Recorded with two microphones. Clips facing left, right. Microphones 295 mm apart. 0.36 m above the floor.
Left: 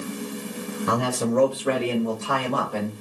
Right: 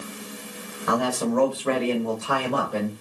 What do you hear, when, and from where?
0.9 s a man speaking: 35° left (ahead or behind), 1.4 m; by 3.0 s 25° right (ahead or behind), 1.2 m